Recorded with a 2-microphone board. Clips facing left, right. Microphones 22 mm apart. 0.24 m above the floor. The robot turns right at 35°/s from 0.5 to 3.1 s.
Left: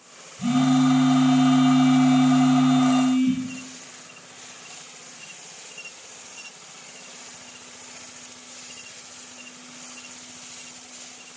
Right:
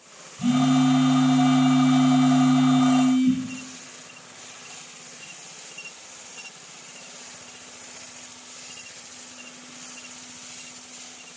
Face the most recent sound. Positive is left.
turn(degrees=20)